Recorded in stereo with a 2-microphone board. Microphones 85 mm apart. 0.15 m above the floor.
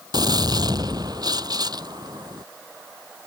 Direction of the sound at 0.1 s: 50° right (ahead or behind).